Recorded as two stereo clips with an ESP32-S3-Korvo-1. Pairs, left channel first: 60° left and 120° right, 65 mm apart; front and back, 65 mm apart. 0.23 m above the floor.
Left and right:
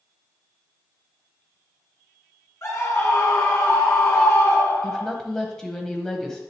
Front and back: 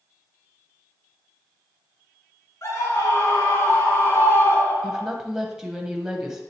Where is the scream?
25° left, 3.5 m; by 5.1 s 50° left, 2.5 m.